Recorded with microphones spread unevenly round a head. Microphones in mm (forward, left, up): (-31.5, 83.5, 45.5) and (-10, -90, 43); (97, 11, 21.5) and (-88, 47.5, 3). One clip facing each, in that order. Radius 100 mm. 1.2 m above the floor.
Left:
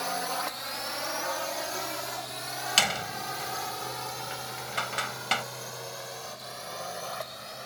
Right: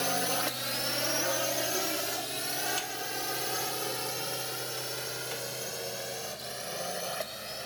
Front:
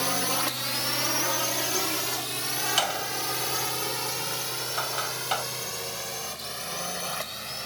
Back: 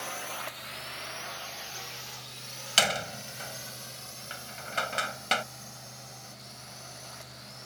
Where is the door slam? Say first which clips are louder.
Left 4 dB, back 2 dB; 105° left.